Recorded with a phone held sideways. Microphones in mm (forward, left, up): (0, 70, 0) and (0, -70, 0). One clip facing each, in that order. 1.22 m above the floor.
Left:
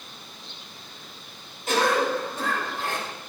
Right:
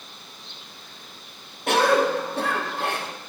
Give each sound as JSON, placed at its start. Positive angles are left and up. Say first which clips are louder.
{"t": 1.7, "sound": "a cough", "louder": "right 3 dB", "side_deg": -65, "distance_m": 1.1}